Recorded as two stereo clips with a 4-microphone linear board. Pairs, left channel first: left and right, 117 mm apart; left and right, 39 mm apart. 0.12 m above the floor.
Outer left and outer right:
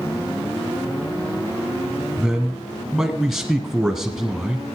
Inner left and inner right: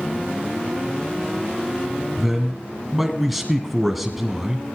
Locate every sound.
2.2 s a man speaking: centre (ahead or behind), 1.7 m